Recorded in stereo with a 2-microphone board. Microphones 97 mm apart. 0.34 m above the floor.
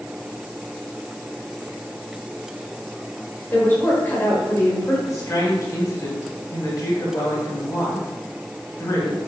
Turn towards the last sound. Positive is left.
turn(degrees=35)  # may be behind; listen again after turning